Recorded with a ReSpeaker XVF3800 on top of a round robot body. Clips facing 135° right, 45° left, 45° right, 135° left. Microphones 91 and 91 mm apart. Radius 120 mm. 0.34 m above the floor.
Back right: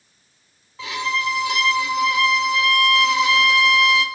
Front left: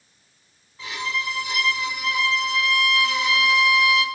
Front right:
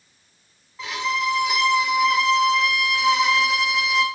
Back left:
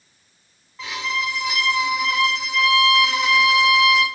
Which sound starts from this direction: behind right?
A violin, at 0.8 s.